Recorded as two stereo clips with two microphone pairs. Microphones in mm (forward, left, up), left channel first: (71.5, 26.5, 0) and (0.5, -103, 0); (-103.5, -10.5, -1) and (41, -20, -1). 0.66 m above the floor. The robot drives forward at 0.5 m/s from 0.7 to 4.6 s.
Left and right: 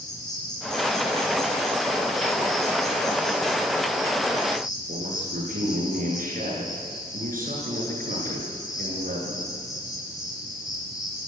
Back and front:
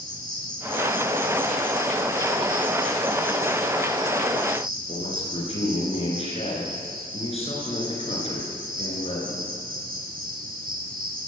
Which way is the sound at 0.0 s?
5° right.